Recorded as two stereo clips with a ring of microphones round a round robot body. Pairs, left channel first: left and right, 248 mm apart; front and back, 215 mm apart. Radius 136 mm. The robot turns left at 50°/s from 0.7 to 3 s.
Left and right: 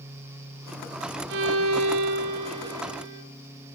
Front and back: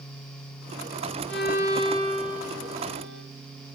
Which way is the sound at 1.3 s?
45° right.